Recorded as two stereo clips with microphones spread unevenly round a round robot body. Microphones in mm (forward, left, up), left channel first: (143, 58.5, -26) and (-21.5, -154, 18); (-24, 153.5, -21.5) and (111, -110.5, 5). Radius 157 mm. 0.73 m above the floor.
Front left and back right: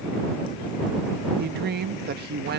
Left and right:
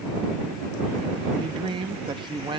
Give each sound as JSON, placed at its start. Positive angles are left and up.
{"t": 1.4, "sound": "a woman speaking", "azimuth_deg": -130}